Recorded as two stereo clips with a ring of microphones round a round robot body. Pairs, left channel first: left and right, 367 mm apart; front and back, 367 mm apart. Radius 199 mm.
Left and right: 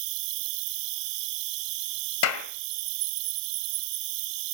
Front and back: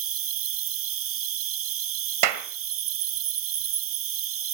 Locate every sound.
0.0 s an insect: 125° right, 0.9 m
2.2 s a clap: 145° left, 1.7 m